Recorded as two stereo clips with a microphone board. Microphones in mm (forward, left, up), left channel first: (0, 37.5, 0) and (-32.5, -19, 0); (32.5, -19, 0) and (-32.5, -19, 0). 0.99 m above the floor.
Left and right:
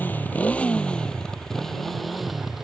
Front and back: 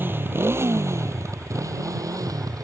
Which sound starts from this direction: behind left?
A motorcycle, at 0.0 s.